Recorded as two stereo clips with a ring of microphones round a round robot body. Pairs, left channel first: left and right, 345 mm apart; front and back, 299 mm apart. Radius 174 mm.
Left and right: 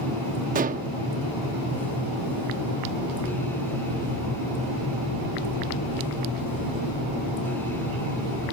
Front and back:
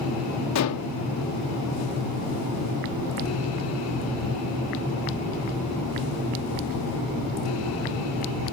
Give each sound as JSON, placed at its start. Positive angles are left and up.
{"t": 0.6, "sound": "dishes clattering", "azimuth_deg": -25}